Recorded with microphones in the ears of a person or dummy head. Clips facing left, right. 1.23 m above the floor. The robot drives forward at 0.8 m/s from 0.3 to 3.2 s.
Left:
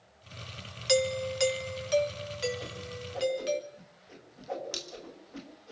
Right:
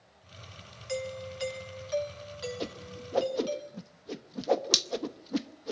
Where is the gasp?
I don't hear a gasp.